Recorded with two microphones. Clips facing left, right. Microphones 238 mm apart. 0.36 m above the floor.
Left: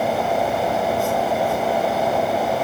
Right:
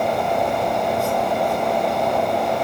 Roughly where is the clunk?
No clunk in this recording.